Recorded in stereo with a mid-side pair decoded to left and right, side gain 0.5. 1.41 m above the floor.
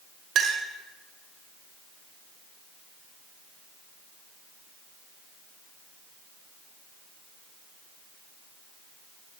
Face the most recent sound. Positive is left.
turn(degrees=-45)